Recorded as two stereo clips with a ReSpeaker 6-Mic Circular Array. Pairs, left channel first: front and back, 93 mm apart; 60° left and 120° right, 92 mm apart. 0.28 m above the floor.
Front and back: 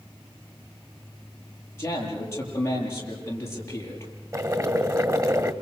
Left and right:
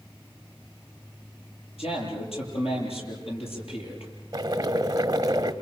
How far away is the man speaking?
About 7.5 m.